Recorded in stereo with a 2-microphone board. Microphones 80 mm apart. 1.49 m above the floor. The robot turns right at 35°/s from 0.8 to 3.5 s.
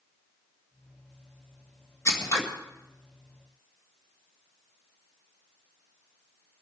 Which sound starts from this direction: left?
Scissors, at 2.0 s.